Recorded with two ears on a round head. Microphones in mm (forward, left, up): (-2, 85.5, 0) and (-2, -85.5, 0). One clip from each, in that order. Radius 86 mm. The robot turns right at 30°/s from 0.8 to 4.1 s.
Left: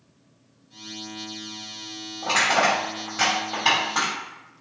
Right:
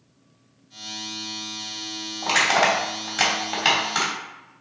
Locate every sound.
2.2 s crushing: 40° right (ahead or behind), 3 m; by 4.1 s 75° right (ahead or behind), 3 m